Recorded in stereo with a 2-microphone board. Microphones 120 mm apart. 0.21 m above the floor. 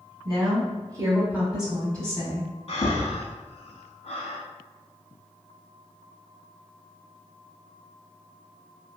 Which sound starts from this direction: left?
Breathing, at 2.7 s.